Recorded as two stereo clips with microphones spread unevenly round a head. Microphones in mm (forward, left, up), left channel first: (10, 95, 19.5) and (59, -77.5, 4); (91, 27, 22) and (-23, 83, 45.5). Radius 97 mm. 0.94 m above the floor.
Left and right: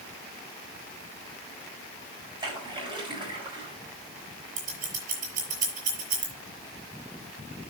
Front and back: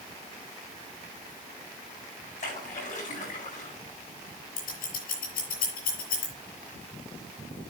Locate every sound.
2.4 s a splash: 10° right, 8.5 m
4.6 s scissors: 30° right, 6 m